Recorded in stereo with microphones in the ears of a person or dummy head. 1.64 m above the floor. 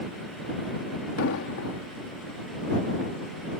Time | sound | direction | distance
1.2 | an explosion | 80° left | ?